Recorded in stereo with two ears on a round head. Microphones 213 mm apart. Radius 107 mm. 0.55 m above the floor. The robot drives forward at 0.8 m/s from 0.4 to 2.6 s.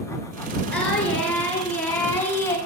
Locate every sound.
0.7 s singing: 5° left (ahead or behind), 3 m; by 2.6 s 10° left (ahead or behind), 1.4 m